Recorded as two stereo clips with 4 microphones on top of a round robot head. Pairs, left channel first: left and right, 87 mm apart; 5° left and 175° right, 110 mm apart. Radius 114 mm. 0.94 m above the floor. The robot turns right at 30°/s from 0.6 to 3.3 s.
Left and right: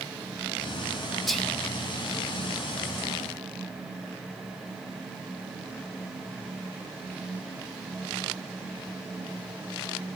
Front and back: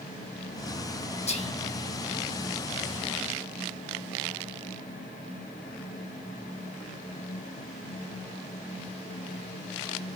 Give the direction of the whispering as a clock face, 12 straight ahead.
12 o'clock.